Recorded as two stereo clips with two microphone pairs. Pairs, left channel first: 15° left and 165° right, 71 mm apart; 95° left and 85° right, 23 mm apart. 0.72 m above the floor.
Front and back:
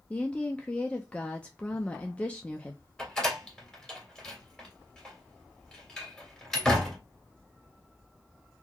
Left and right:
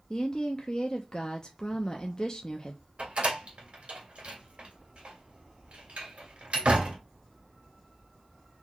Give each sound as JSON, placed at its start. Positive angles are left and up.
{"t": 0.1, "sound": "a woman speaking", "azimuth_deg": 75, "distance_m": 0.6}
{"t": 3.0, "sound": "a door slam", "azimuth_deg": -65, "distance_m": 2.0}